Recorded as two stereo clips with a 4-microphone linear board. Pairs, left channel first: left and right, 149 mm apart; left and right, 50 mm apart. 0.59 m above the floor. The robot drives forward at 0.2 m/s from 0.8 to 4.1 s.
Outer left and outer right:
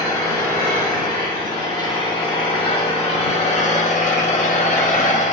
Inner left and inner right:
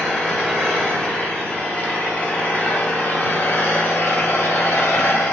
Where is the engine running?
30° left (ahead or behind), 1.0 m; by 5.3 s 55° left (ahead or behind), 0.6 m.